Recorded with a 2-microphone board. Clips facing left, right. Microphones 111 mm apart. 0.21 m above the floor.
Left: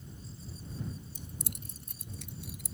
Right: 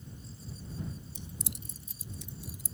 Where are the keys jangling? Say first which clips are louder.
Right 1 dB; 45° left (ahead or behind); by 2.7 s 70° left (ahead or behind).